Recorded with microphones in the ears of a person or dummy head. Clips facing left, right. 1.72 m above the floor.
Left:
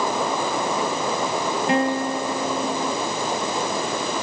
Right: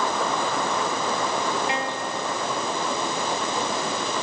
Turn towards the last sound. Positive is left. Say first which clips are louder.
# left 7 dB
turn(degrees=45)  # may be behind; listen again after turning